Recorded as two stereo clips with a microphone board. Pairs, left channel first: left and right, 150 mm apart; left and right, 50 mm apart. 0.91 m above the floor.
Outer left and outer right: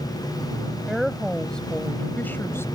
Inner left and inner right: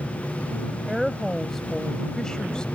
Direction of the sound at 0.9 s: Centre (ahead or behind).